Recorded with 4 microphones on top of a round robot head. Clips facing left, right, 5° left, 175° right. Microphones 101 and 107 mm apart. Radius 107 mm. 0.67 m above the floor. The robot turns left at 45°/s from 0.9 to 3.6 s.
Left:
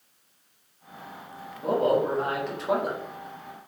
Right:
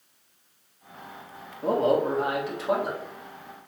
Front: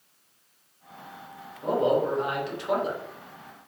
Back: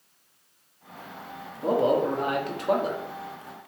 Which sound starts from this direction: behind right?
A man speaking, at 1.6 s.